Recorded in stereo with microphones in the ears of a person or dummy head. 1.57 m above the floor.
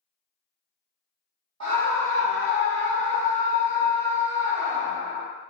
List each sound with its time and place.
1.6 s a scream: 90° right, 1.9 m; by 5.2 s 60° right (ahead or behind), 4.5 m